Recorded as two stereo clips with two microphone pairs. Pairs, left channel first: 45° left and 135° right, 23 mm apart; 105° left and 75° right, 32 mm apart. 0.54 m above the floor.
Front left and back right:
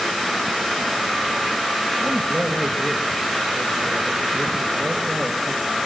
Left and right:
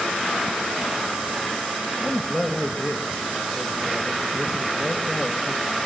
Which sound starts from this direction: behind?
A man speaking, at 2.0 s.